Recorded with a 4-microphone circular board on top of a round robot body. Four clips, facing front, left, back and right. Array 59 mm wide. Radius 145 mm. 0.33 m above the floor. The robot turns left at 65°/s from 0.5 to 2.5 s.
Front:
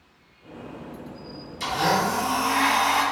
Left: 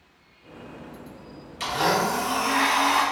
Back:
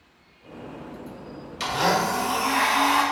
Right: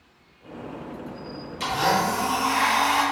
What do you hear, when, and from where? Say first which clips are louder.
1.6 s a blender: right 1 dB, even; 175° left, 1.9 m; by 3.0 s 120° left, 1.9 m